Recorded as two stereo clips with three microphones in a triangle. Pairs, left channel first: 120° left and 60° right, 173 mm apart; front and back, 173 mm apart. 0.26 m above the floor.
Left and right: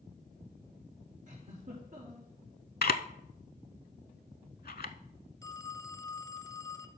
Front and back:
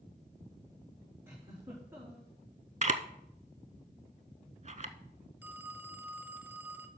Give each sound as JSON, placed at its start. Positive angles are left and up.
{"t": 1.3, "sound": "a giggle", "azimuth_deg": -105, "distance_m": 4.0}
{"t": 2.8, "sound": "a camera shutter", "azimuth_deg": 140, "distance_m": 0.5}
{"t": 5.4, "sound": "a phone ringing", "azimuth_deg": 125, "distance_m": 0.7}